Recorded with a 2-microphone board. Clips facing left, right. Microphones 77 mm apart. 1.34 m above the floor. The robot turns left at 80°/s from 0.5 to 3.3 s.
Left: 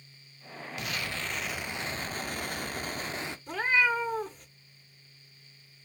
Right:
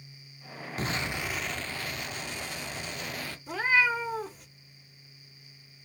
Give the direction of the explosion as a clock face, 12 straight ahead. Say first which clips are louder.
Right 4 dB; 4 o'clock.